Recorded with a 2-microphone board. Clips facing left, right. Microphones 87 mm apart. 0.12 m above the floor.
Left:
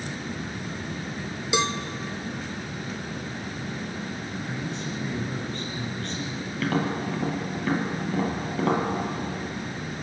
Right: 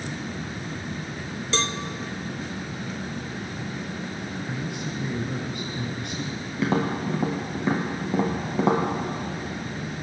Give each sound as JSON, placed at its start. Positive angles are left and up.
{"t": 1.5, "sound": "a cowbell", "side_deg": 15, "distance_m": 0.6}
{"t": 4.5, "sound": "a man speaking", "side_deg": -15, "distance_m": 1.6}
{"t": 6.6, "sound": "tapping", "side_deg": -25, "distance_m": 2.0}